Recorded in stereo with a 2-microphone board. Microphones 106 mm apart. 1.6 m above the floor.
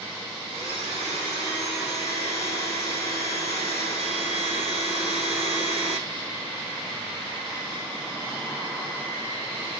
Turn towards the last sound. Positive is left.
turn(degrees=30)  # may be behind; listen again after turning